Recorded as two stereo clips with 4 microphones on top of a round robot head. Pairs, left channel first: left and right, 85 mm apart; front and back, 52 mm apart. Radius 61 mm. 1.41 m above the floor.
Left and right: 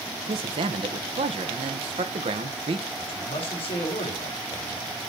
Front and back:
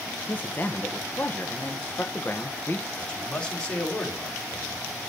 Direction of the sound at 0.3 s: 65° right.